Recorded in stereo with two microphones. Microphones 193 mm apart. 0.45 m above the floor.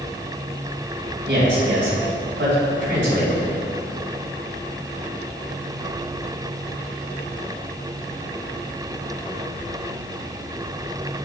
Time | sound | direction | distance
1.3 | a man speaking | 65° right (ahead or behind) | 3 m